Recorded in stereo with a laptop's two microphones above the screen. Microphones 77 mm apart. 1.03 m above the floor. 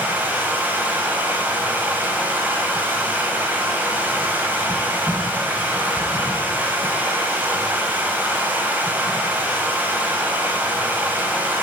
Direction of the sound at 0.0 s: 20° right (ahead or behind).